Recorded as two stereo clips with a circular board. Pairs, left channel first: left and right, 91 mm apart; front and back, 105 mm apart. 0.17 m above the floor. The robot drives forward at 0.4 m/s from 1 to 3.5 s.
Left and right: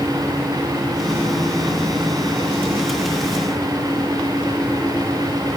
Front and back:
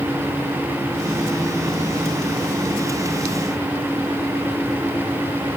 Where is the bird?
I don't hear a bird.